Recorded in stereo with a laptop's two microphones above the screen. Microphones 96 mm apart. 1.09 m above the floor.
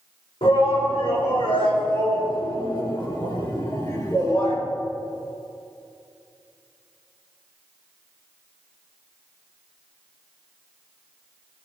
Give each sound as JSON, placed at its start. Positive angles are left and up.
{"t": 0.4, "sound": "a shout", "side_deg": 70, "distance_m": 4.5}